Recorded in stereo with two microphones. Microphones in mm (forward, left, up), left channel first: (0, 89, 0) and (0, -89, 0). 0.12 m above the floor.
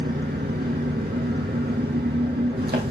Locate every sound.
0.0 s an engine running: 65° right (ahead or behind), 2 m